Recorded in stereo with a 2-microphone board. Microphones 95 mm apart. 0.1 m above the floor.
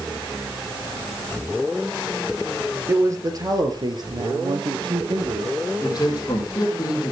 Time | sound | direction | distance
2.9 | a man speaking | 30° right (ahead or behind) | 2.5 m
5.8 | a man speaking | 40° left (ahead or behind) | 4 m